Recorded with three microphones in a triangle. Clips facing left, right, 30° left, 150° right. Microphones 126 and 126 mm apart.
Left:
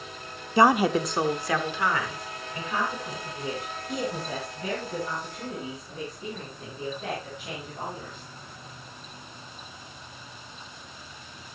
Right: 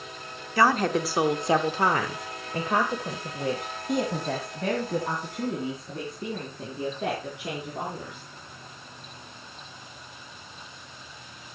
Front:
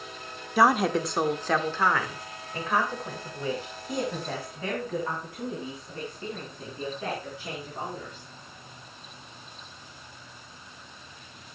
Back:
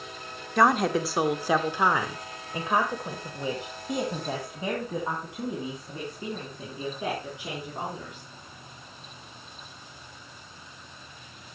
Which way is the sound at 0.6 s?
110° left.